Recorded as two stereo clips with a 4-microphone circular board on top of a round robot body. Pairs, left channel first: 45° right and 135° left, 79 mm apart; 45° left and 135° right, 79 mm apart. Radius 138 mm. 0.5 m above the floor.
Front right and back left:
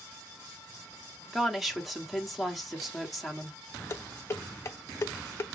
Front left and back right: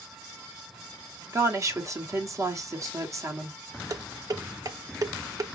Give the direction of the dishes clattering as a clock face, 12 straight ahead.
3 o'clock.